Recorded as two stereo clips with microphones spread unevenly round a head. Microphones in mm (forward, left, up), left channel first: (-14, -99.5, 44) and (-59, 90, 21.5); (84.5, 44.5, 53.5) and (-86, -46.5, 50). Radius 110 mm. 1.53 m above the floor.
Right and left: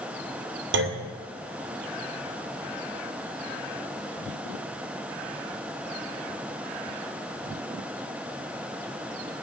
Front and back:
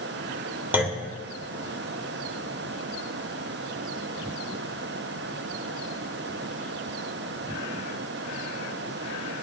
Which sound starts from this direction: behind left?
A clunk, at 0.7 s.